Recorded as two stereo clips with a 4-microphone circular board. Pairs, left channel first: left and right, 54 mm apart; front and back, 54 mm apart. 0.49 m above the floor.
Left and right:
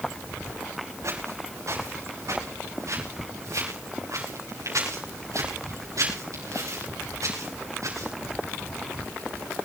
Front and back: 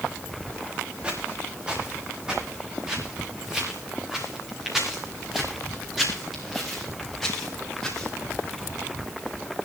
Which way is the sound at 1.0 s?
110° right.